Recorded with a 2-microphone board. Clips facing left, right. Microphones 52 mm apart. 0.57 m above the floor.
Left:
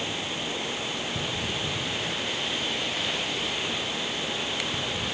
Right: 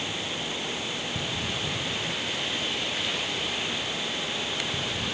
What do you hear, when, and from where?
Only background noise.